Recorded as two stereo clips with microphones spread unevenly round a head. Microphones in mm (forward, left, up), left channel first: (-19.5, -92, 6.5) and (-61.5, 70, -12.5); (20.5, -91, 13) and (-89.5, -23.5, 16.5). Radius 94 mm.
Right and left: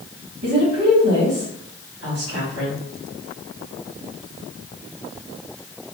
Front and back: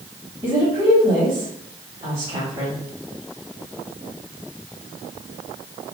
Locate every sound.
0.4 s a woman speaking: 85° left, 1.7 m